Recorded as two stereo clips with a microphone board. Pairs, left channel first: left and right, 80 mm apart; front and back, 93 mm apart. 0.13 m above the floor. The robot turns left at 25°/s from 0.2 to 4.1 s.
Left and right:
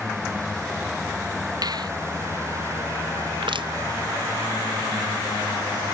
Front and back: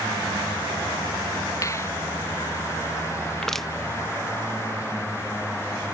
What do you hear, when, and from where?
1.6 s a finger snap: 55° right; by 1.9 s 60° right
3.4 s crushing: 85° right; by 3.7 s 90° right